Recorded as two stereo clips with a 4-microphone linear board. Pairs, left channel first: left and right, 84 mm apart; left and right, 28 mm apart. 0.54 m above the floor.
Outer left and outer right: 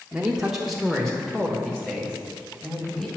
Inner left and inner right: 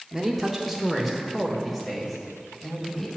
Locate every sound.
0.1 s a man speaking: 15° right (ahead or behind), 0.8 m; by 3.1 s 10° left (ahead or behind), 3 m